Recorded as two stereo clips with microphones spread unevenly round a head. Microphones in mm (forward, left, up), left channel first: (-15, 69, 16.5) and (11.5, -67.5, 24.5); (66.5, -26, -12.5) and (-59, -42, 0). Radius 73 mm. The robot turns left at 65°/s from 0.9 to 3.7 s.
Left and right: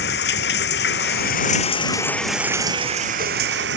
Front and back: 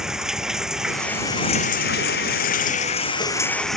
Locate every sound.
0.0 s running water: 100° left; by 3.8 s 80° right